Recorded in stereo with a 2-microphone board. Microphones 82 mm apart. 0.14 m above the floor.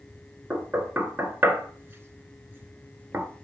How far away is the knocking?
About 1.7 m.